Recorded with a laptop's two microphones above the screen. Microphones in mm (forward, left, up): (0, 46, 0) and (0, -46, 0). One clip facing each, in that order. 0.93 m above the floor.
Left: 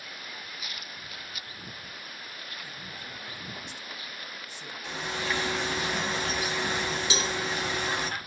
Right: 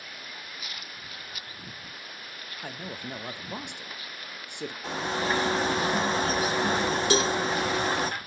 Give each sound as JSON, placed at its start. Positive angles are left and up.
{"t": 2.6, "sound": "a man speaking", "side_deg": -60, "distance_m": 0.6}
{"t": 4.8, "sound": "a bird", "side_deg": -35, "distance_m": 0.7}
{"t": 7.1, "sound": "a cowbell", "side_deg": -45, "distance_m": 0.8}